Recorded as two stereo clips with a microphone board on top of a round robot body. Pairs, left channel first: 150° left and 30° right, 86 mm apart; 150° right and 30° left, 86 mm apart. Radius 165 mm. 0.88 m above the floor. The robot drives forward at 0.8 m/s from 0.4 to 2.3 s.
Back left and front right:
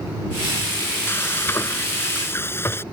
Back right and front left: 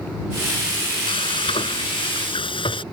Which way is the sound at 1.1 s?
145° right.